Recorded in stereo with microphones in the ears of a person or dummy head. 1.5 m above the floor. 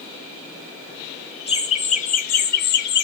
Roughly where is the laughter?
Left.